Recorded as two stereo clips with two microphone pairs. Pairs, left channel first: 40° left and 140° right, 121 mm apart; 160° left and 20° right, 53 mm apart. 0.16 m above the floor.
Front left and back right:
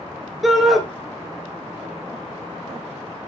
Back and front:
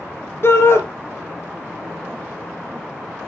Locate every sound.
0.4 s a shout: 135° left, 2.5 m